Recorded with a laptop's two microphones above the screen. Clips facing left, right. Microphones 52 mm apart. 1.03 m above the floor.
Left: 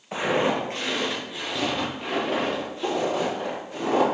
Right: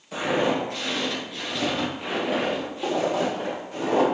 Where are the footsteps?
40° left (ahead or behind), 1.4 m; by 4.0 s 25° right (ahead or behind), 3 m.